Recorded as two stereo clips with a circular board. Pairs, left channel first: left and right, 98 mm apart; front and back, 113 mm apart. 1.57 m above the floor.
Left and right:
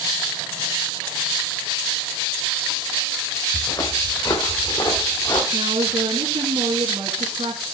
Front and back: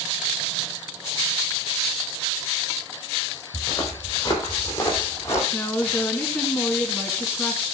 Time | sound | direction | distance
3.5 | footsteps | 55° left | 3.5 m
5.5 | a woman speaking | 75° right | 2 m